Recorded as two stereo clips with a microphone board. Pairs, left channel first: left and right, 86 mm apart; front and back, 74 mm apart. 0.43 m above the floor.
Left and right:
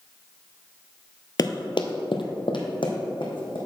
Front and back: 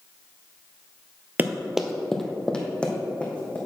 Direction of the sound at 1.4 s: 120° left.